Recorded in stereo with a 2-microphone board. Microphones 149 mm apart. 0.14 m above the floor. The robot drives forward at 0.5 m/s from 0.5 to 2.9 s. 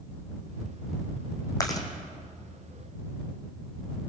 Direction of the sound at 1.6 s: 25° left (ahead or behind).